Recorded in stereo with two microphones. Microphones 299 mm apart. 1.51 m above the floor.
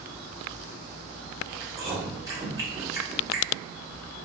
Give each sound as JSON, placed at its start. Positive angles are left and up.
{"t": 1.6, "sound": "chewing", "side_deg": -10, "distance_m": 1.5}